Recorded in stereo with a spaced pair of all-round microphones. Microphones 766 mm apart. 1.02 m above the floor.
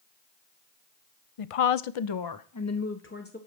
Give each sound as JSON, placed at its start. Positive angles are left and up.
{"t": 1.4, "sound": "a woman speaking", "side_deg": 50, "distance_m": 0.5}